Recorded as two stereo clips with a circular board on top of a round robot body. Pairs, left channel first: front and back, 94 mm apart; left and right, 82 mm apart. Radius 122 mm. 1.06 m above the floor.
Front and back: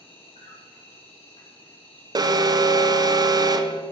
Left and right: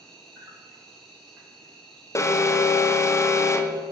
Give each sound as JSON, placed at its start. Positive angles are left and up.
{"t": 0.0, "sound": "an insect", "azimuth_deg": 5, "distance_m": 3.0}
{"t": 2.1, "sound": "an alarm", "azimuth_deg": 140, "distance_m": 0.7}